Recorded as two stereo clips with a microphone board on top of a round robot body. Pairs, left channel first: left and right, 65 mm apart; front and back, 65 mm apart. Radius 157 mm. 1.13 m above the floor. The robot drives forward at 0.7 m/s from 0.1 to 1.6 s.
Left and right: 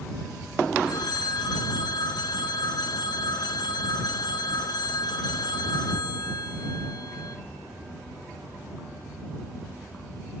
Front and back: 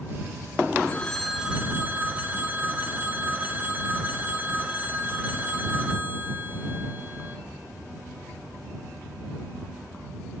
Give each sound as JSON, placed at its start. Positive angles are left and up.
{"t": 0.9, "sound": "a phone ringing", "azimuth_deg": 65, "distance_m": 0.8}